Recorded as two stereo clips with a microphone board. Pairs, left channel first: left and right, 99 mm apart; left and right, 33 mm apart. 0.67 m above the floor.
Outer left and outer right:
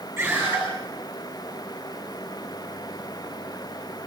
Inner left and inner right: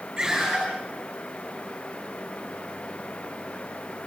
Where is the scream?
20° right (ahead or behind), 9.5 m.